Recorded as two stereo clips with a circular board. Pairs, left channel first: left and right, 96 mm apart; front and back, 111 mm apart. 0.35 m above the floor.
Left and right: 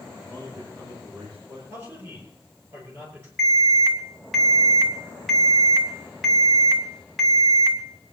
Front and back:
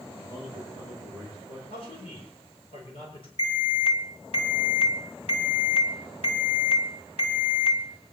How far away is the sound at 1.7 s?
About 8.5 m.